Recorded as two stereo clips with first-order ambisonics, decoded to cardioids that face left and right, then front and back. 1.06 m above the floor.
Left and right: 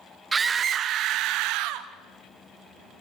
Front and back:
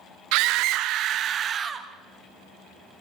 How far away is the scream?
About 1.0 m.